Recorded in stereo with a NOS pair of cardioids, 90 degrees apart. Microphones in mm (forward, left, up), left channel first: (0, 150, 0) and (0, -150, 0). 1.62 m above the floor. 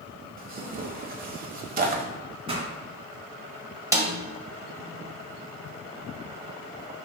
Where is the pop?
20° right, 2.5 m.